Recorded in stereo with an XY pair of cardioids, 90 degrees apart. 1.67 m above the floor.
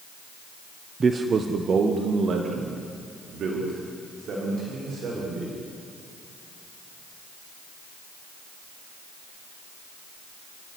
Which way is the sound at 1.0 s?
35° right.